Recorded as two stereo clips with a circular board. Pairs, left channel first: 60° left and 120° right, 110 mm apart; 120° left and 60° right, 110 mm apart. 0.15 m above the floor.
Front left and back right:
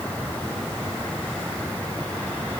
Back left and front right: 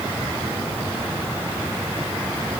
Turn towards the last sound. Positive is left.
No sound to turn to.